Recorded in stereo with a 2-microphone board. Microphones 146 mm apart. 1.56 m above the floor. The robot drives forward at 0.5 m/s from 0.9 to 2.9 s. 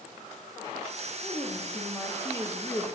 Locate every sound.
1.2 s a woman speaking: 15° left (ahead or behind), 2.5 m; by 2.8 s 20° left (ahead or behind), 1.7 m